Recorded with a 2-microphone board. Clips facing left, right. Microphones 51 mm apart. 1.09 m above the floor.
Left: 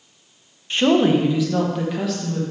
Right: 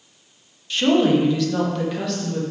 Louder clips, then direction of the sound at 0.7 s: Left 1 dB; 30° left (ahead or behind).